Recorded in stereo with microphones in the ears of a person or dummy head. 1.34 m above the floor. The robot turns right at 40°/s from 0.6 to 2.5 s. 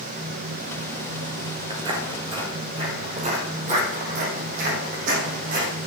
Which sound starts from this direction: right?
Footsteps, at 1.7 s.